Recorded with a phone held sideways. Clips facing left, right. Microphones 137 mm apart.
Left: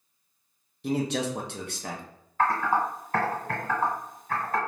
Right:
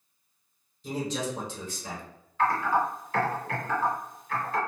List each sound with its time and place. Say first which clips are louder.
0.8 s a man speaking: left 4 dB; 65° left (ahead or behind), 0.6 m
2.4 s typing on a keyboard: even; 45° left (ahead or behind), 1.7 m